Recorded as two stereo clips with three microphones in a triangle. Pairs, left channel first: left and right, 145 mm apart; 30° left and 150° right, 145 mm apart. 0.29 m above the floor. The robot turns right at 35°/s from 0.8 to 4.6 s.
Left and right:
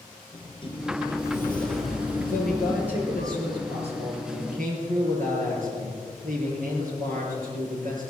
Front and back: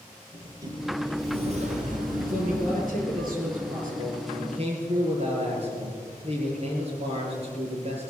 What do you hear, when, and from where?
0.3 s a sliding door: 145° left, 3.5 m; by 3.3 s 130° right, 3.5 m
2.3 s a man speaking: 170° left, 5.5 m; by 8.1 s 110° right, 5.5 m